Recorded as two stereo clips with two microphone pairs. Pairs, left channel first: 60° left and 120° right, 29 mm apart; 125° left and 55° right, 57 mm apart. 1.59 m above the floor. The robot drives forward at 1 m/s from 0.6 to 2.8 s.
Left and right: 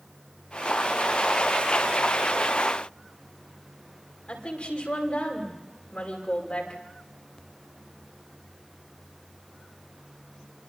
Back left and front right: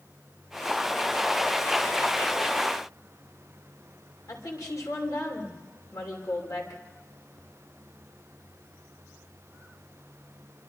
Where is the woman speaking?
110° left, 5.5 m.